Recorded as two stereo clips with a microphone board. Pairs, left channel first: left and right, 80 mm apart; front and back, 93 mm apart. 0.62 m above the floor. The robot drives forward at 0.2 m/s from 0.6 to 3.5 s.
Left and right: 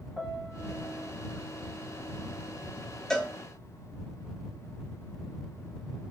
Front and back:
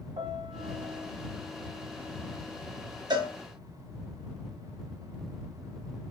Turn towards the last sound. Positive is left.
turn(degrees=170)